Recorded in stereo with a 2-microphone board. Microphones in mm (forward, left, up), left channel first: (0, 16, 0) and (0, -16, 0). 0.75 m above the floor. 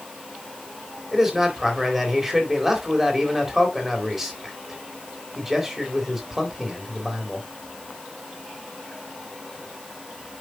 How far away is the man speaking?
About 3.5 m.